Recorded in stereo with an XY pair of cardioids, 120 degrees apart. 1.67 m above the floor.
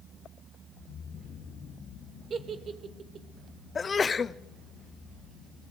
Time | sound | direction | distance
2.3 | a giggle | 40° right | 2.5 m
3.8 | a sneeze | 30° left | 1.0 m